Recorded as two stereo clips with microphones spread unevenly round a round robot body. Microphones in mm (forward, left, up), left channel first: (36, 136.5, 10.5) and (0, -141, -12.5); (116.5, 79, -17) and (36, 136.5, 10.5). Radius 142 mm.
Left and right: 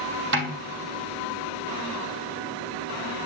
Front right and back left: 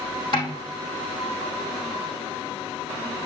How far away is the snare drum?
About 2.5 m.